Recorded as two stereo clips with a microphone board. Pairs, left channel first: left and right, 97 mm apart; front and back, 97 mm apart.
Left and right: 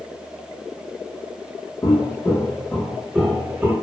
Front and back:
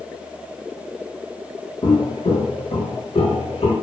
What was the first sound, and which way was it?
Footsteps, 40° left.